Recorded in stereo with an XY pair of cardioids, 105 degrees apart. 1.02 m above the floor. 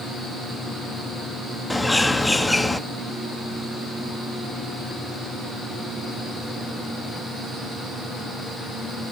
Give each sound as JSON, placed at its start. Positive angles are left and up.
{"t": 1.7, "sound": "a bird", "azimuth_deg": 10, "distance_m": 1.2}